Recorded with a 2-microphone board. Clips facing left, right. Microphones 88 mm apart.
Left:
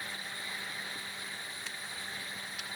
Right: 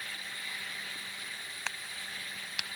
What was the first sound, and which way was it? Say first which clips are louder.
A crack: right 1 dB; 85° right.